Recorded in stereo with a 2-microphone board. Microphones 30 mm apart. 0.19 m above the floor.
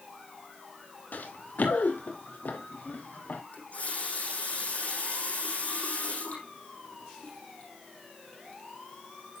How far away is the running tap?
About 5.5 m.